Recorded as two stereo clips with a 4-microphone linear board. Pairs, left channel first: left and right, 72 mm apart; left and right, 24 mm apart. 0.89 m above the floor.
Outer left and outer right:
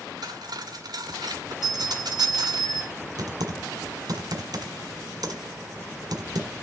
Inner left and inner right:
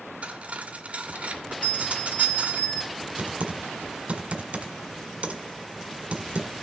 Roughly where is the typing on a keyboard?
Right.